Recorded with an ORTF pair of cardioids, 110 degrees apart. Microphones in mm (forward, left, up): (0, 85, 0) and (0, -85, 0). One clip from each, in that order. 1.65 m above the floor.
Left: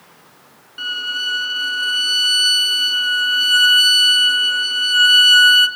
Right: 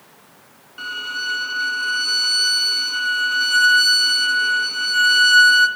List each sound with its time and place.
0.8 s a violin: 10° right, 2 m